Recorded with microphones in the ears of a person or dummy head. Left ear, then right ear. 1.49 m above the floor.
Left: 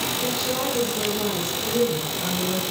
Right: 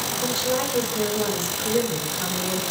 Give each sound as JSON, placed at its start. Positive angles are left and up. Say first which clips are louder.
{"t": 0.2, "sound": "a woman speaking", "louder": "right 1 dB", "side_deg": -50, "distance_m": 7.0}